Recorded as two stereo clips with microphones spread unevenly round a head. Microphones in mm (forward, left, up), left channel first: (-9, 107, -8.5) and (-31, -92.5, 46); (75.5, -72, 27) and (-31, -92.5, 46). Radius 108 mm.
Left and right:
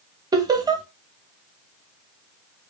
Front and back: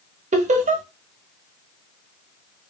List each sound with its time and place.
0.3 s laughter: 165° right, 1.0 m